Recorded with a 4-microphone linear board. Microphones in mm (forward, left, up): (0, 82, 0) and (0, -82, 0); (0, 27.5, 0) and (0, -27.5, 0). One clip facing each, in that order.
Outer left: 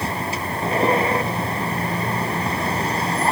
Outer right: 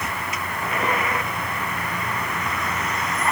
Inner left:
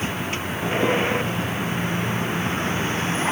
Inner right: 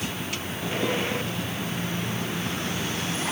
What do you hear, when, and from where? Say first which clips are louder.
0.0 s a vehicle: outer left 4 dB, inner left 5 dB; 30° left (ahead or behind)